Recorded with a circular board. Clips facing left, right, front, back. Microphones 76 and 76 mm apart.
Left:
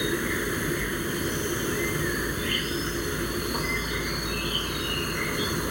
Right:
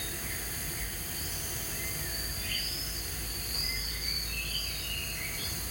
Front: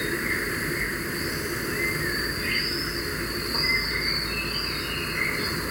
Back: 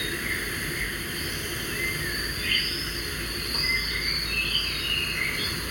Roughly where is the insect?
Ahead left.